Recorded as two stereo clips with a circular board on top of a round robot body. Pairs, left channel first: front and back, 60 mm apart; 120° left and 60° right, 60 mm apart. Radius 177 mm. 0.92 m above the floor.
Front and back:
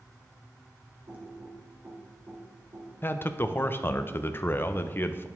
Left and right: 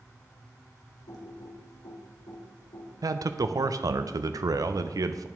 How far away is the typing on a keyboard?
About 1.6 m.